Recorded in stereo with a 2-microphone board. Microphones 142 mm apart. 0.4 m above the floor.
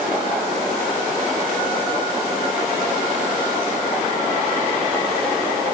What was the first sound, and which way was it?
Only background noise.